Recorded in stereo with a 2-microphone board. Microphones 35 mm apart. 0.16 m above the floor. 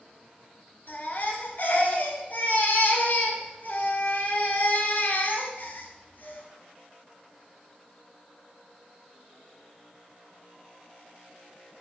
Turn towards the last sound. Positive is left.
turn(degrees=50)  # may be behind; listen again after turning